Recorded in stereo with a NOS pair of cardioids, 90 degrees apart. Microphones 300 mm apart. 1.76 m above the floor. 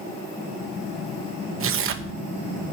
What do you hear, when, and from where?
1.6 s tearing paper: 45° right, 1.2 m